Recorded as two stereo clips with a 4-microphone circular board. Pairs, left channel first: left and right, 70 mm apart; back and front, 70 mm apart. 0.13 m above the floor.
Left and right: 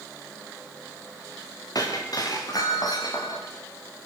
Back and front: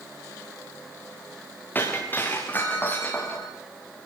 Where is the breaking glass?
115° left, 6.5 m.